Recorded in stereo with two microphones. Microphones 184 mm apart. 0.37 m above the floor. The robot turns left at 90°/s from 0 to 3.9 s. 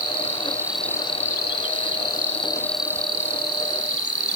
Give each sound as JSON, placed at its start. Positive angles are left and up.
{"t": 0.0, "sound": "an insect", "azimuth_deg": -110}